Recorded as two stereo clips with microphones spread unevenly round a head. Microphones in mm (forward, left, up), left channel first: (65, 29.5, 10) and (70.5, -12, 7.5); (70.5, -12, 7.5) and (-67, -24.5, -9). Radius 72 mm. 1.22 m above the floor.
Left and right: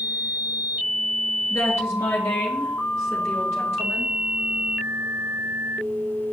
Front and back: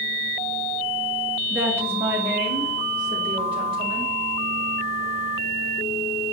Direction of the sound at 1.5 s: 105° left.